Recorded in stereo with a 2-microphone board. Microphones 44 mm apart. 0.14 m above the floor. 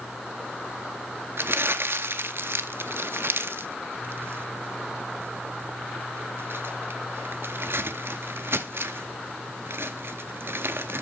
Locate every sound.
1.4 s crumpling: 65° right (ahead or behind), 0.6 m